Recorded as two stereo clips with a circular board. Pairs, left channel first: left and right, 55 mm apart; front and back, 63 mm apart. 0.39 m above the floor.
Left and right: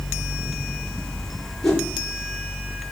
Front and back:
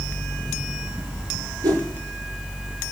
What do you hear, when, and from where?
1.6 s a whoosh: 165° left, 4.5 m